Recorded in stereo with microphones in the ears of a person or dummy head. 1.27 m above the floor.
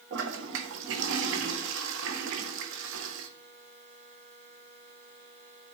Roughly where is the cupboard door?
No cupboard door in this recording.